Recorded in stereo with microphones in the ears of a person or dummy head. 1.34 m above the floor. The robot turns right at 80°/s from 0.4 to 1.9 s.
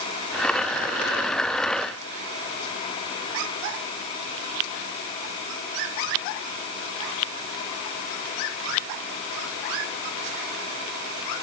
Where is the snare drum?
I don't hear a snare drum.